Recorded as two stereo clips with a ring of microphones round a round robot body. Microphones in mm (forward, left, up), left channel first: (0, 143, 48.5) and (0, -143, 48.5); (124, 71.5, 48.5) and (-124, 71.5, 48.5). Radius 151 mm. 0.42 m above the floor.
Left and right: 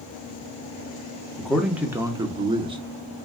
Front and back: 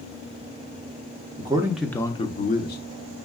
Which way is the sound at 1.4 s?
175° left.